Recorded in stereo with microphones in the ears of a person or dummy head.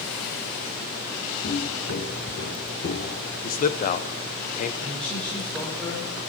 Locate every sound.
1.4 s footsteps: 45° left (ahead or behind), 2.5 m; by 3.3 s 55° left (ahead or behind), 2.5 m
3.4 s a man speaking: 45° left (ahead or behind), 1.0 m
4.8 s a man speaking: 5° left (ahead or behind), 4.5 m